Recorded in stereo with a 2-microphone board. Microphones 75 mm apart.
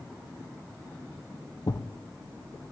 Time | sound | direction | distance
1.7 | a thud | 60° left (ahead or behind) | 1.3 m